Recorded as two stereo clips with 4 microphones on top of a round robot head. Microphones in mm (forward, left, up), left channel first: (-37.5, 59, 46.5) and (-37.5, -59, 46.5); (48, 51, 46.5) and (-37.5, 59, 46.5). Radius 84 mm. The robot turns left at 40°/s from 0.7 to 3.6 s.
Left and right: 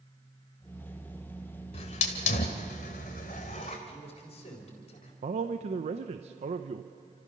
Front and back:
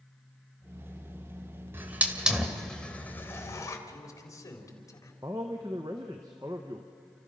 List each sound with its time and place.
1.7 s a hiss: 115° left, 2.0 m; by 3.8 s 40° left, 2.0 m
3.9 s a man speaking: 40° left, 4.5 m
5.2 s a man speaking: 120° right, 0.8 m